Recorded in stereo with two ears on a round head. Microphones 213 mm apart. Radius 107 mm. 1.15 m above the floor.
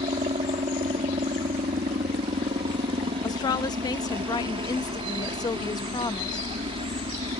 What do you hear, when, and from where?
0.0 s a helicopter: 20° right (ahead or behind)
3.2 s a woman speaking: 15° left (ahead or behind)